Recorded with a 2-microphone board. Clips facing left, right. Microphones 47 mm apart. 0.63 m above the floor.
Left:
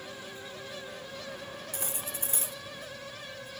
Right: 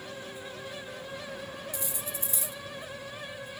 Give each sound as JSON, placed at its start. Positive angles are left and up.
{"t": 1.7, "sound": "cutlery clinking", "side_deg": 50, "distance_m": 0.7}